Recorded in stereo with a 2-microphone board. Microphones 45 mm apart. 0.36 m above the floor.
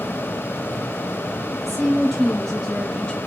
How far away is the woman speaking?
About 2 m.